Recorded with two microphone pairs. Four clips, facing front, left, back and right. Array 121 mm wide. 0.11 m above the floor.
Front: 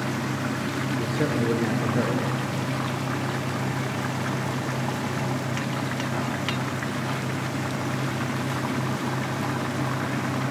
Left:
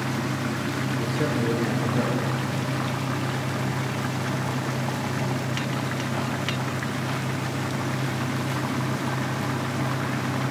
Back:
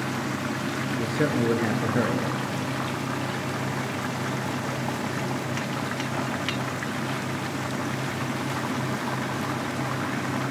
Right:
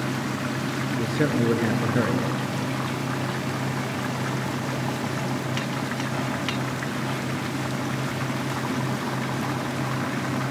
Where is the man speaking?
130° right, 1.6 m.